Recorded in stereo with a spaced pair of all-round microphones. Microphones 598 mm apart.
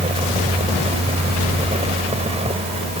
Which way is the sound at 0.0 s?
10° right (ahead or behind).